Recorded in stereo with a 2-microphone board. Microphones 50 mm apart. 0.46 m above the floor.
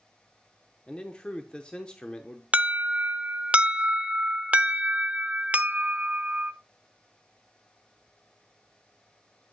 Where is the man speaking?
20° left (ahead or behind), 0.7 m.